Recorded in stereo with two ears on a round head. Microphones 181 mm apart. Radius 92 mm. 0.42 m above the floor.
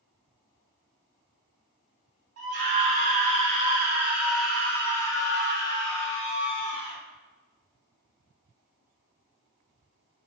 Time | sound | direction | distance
2.4 | a scream | 50° right (ahead or behind) | 1.5 m